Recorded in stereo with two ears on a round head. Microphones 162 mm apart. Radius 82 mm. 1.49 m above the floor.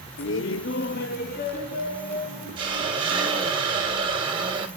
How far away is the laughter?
About 0.6 m.